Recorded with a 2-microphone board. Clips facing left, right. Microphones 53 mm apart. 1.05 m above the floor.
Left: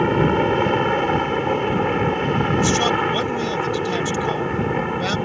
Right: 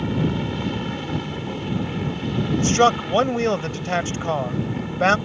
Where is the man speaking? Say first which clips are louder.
Right 5 dB; 40° right (ahead or behind).